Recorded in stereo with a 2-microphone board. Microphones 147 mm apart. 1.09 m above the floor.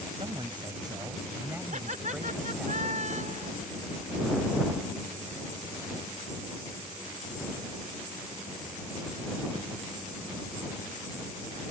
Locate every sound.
0.2 s a woman speaking: 35° right (ahead or behind); by 2.7 s centre (ahead or behind)
1.7 s laughter: 60° right (ahead or behind)